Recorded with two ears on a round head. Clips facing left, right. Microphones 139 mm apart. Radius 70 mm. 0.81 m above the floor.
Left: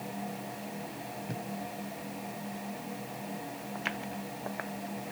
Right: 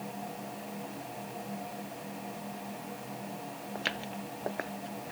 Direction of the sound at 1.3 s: 65° left (ahead or behind).